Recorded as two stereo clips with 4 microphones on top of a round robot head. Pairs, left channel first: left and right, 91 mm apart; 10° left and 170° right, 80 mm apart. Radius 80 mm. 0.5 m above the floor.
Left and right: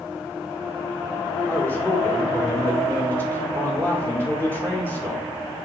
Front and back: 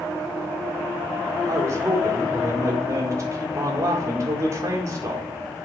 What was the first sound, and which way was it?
A man speaking, 155° left.